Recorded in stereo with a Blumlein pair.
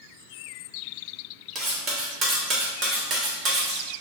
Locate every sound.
1.6 s cutlery clinking: 30° right, 0.9 m